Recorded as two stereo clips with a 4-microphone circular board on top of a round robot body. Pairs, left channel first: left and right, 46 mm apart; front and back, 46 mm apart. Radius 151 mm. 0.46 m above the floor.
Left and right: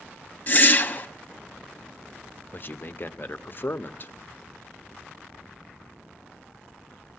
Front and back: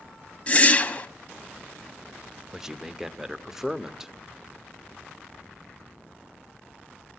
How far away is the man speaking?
About 1.3 m.